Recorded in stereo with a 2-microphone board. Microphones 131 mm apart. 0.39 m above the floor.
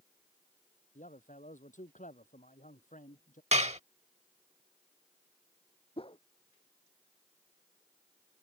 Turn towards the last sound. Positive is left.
turn(degrees=45)  # may be behind; listen again after turning